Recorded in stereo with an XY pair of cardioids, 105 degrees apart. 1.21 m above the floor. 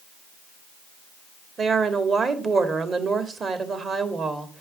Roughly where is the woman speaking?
Ahead right.